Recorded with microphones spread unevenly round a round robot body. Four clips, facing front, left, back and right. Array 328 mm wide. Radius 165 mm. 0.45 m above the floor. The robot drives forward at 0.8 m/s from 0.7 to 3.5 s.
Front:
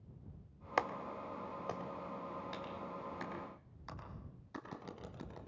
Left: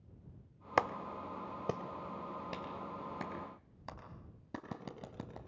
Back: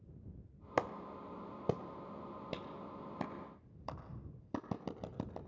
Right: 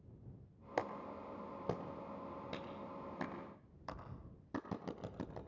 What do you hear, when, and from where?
0.8 s a clap: 130° left, 0.8 m; by 5.4 s 175° left, 2.5 m